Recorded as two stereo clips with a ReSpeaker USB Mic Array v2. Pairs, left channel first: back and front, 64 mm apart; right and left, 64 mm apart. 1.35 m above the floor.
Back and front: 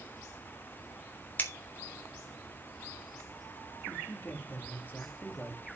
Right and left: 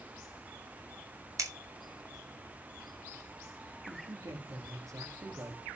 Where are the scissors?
120° left, 3 m.